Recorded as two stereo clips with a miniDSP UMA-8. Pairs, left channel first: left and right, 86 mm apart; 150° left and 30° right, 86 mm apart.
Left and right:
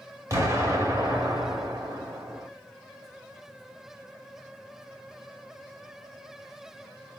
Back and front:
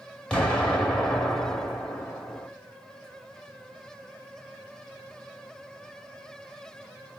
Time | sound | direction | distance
0.3 | an explosion | 130° right | 1.3 m